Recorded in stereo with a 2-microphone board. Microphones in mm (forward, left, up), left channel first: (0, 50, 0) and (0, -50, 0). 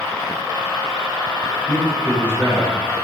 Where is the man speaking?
15° left (ahead or behind), 7.5 m.